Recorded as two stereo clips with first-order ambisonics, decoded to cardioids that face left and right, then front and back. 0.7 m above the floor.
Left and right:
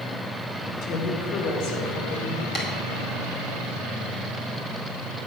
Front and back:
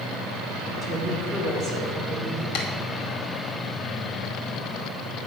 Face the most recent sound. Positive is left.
turn(degrees=25)